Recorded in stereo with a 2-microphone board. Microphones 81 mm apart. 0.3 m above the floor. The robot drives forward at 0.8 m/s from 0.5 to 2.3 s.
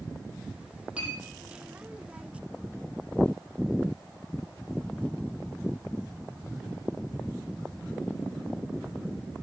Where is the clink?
15° right (ahead or behind), 6 m.